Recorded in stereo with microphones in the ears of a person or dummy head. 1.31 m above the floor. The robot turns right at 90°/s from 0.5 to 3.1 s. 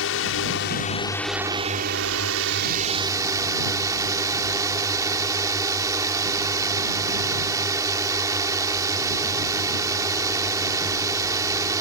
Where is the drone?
110° left; by 11.8 s 20° right.